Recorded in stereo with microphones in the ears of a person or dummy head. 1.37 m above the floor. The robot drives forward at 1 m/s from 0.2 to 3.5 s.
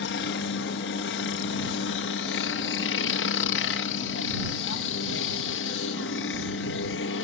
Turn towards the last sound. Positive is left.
turn(degrees=60)  # may be behind; listen again after turning